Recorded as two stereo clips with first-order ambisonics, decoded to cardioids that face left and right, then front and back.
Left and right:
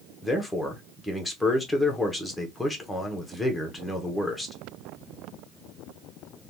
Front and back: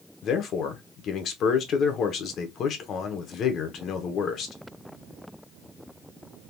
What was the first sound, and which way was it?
A man speaking, 5° left.